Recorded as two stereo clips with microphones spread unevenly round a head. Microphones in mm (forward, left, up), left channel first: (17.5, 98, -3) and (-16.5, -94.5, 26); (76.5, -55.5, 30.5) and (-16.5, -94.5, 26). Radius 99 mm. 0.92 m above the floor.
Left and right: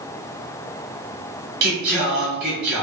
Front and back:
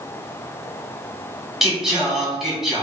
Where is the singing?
70° right, 1.7 m.